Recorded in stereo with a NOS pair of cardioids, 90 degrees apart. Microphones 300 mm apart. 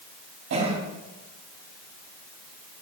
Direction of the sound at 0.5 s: 60° right.